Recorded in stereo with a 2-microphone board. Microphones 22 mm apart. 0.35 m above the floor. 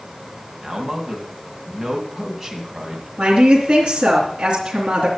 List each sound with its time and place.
0.6 s a man speaking: 25° right (ahead or behind), 2.5 m
3.2 s a woman speaking: 70° right (ahead or behind), 3.5 m